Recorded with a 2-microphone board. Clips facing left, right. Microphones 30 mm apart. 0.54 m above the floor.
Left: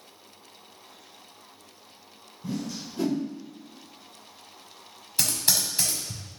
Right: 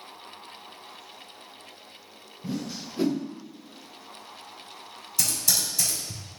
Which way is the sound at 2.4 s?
30° right (ahead or behind).